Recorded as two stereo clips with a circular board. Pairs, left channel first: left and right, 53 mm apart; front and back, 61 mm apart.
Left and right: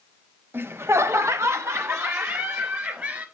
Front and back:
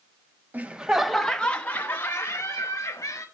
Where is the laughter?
125° right, 0.6 m; by 3.2 s 40° right, 1.6 m.